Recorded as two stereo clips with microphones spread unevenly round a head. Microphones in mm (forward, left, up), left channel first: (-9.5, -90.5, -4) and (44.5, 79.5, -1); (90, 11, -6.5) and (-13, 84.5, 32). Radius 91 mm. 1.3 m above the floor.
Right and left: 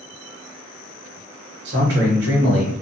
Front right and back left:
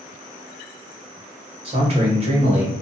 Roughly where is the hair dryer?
No hair dryer in this recording.